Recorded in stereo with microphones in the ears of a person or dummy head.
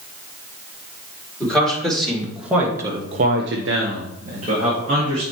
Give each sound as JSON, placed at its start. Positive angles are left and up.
{"t": 1.4, "sound": "a man speaking", "side_deg": 0, "distance_m": 3.0}